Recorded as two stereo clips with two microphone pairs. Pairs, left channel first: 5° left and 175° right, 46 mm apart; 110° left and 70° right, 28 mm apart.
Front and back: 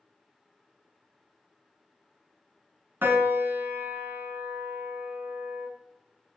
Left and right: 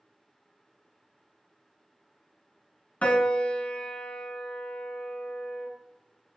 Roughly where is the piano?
Behind left.